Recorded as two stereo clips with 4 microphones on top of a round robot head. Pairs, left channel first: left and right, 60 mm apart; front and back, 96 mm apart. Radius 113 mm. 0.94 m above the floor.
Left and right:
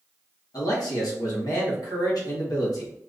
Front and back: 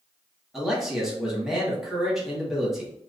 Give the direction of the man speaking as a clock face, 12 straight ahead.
9 o'clock.